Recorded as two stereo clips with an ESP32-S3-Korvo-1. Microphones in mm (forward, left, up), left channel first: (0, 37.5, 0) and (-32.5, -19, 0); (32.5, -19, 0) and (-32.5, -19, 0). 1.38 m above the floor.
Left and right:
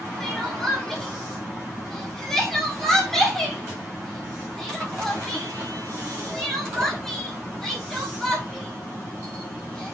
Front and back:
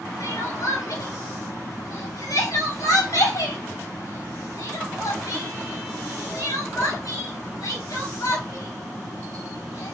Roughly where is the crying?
Ahead right.